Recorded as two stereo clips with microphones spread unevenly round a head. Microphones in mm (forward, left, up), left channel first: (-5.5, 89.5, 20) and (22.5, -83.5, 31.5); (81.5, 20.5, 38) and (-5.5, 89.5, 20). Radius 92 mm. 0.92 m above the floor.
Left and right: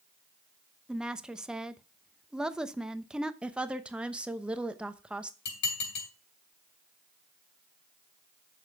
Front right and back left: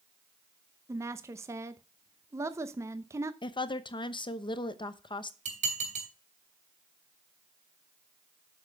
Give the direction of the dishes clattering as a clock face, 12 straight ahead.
8 o'clock.